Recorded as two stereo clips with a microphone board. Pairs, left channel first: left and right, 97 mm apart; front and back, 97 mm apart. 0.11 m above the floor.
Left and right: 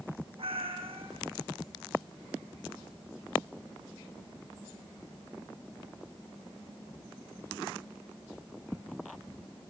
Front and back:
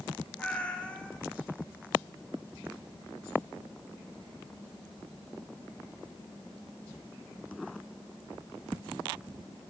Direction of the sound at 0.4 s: 80° right.